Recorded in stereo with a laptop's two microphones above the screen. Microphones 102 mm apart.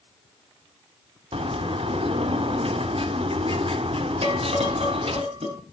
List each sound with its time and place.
1.3 s a bird: 70° right (ahead or behind), 1.3 m
4.2 s dishes clattering: 75° right (ahead or behind), 6.5 m